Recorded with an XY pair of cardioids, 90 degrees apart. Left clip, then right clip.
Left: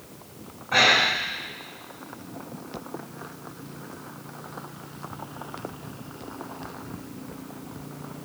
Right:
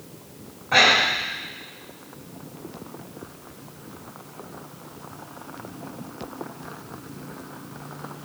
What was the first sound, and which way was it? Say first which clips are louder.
Breathing: right 2 dB; 30° right.